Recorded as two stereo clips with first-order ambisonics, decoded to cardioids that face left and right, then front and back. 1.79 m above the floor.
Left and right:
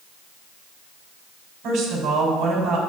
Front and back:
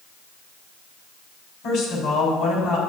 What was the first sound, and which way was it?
A woman speaking, 40° right.